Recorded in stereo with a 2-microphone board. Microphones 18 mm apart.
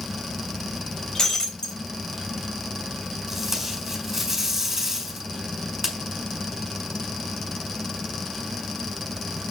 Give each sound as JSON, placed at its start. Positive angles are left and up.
{"t": 1.1, "sound": "breaking glass", "side_deg": 30, "distance_m": 3.5}
{"t": 3.3, "sound": "tape being pulled", "side_deg": -20, "distance_m": 5.5}